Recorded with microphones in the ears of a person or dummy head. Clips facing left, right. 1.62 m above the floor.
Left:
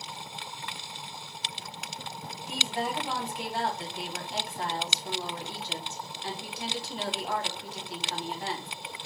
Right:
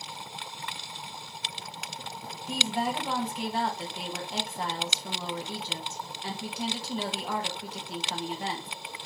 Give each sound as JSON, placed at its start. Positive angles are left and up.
{"t": 2.5, "sound": "a woman speaking", "side_deg": -75, "distance_m": 1.8}